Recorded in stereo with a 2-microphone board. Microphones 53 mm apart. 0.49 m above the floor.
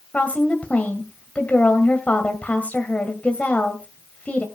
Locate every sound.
0.1 s a woman speaking: 25° left (ahead or behind), 2 m